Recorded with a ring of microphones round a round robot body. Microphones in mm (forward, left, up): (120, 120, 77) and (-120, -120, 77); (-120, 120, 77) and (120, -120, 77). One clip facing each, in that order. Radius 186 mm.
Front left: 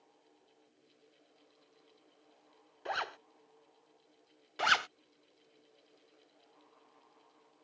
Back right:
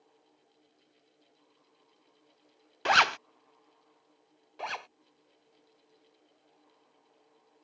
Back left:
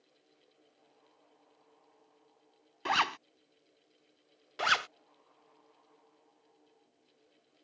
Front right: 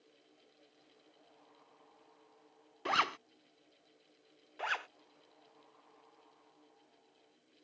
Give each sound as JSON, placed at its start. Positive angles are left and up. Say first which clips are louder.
{"t": 2.9, "sound": "a zipper", "louder": "back right 10 dB, back left 2 dB", "azimuth_deg": -150}
{"t": 4.6, "sound": "a zipper", "louder": "front left 3 dB, back left 6 dB", "azimuth_deg": 100}